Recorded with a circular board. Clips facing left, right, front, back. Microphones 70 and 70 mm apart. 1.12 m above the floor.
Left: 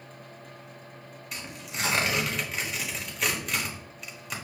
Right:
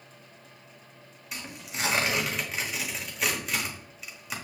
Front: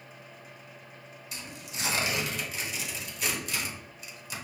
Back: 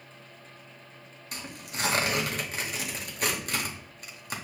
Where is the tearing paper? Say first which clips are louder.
Even, back 4 dB; 175° right, 1.1 m.